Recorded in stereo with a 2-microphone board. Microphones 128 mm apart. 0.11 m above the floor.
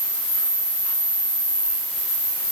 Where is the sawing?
No sawing in this recording.